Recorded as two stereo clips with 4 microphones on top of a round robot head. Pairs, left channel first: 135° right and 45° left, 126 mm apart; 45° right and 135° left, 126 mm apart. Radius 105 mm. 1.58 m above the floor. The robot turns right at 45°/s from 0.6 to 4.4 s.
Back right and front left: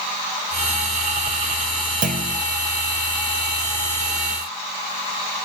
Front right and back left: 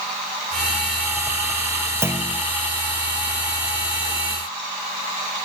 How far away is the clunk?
About 1.3 m.